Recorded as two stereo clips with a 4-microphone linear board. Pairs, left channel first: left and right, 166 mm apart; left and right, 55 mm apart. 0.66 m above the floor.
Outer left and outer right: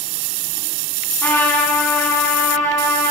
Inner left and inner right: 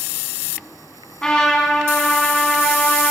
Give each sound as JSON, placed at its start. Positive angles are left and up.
{"t": 1.2, "sound": "a trumpet", "side_deg": 15, "distance_m": 4.5}